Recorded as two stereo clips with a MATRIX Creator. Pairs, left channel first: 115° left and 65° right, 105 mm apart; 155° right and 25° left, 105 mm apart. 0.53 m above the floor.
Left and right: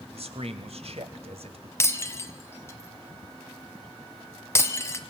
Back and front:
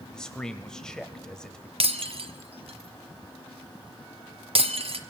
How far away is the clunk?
No clunk in this recording.